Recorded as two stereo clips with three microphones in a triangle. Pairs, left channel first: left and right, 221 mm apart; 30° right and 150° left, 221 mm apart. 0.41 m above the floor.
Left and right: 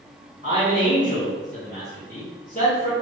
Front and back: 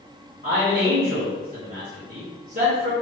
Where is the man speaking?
130° left, 2.0 m.